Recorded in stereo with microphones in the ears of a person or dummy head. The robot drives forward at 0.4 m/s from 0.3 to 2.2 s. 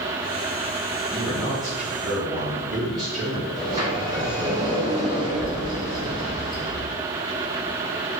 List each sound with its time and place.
1.1 s a man speaking: 5° right (ahead or behind), 1.3 m
3.6 s a sliding door: 20° right (ahead or behind), 1.7 m